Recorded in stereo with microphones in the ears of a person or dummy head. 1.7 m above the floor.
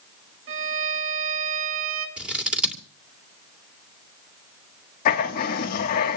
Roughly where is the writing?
Left.